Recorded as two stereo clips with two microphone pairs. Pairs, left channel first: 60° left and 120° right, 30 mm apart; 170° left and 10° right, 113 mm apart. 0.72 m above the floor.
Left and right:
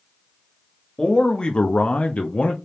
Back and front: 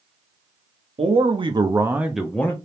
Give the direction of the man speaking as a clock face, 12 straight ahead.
12 o'clock.